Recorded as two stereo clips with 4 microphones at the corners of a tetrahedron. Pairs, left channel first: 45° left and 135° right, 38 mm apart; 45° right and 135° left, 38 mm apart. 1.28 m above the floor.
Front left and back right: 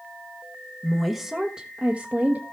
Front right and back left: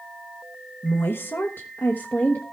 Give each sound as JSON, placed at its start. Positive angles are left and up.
{"t": 0.8, "sound": "a woman speaking", "azimuth_deg": -40, "distance_m": 1.2}